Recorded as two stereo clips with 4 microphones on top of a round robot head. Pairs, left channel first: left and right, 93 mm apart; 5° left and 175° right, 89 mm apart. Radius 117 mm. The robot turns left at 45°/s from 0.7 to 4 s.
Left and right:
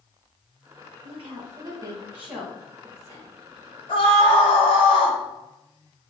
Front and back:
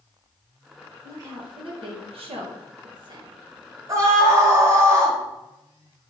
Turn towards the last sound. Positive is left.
turn(degrees=125)